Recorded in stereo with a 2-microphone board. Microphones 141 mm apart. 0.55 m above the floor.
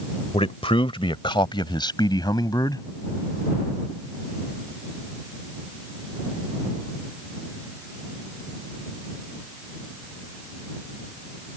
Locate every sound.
0.3 s a man speaking: 45° left (ahead or behind); by 2.9 s 25° left (ahead or behind)